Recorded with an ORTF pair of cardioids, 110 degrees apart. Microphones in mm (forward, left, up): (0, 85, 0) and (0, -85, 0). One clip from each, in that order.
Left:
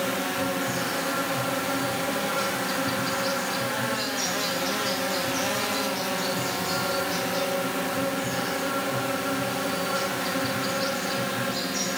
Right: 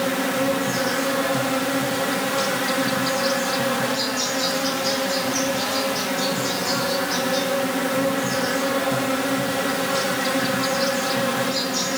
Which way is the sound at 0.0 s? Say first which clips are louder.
Right 5 dB; 65° right.